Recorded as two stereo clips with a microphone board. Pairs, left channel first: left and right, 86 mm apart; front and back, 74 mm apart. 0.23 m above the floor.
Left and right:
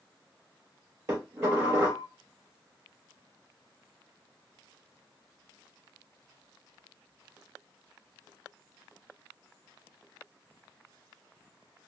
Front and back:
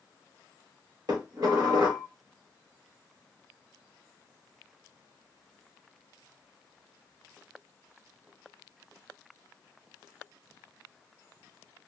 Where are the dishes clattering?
145° right, 3 m.